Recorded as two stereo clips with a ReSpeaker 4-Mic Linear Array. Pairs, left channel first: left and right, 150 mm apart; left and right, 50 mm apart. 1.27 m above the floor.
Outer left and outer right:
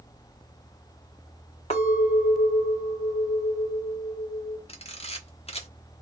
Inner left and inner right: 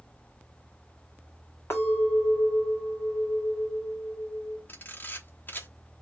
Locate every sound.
1.7 s a clink: 45° left (ahead or behind), 1.8 m
4.7 s a camera shutter: 45° left (ahead or behind), 1.1 m